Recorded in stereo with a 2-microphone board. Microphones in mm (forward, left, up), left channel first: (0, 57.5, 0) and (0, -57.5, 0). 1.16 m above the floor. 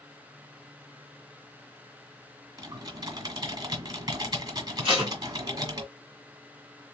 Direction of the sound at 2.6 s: 40° right (ahead or behind).